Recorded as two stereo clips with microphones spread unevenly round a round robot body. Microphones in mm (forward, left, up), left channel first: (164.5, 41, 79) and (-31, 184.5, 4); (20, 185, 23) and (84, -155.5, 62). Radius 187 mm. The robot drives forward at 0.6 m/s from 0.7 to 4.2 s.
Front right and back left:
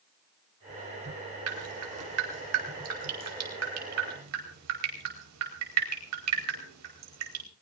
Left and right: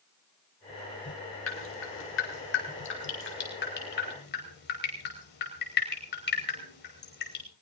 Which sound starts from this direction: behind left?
Dripping, at 1.5 s.